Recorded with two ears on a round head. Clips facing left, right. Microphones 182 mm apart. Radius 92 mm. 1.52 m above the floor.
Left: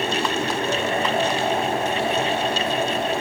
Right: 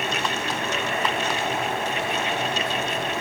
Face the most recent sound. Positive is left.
No sound to turn to.